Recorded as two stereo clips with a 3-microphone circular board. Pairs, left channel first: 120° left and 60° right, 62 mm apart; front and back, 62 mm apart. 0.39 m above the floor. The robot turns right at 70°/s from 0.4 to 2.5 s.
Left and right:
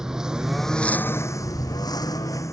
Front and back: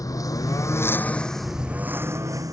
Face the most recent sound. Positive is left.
turn(degrees=155)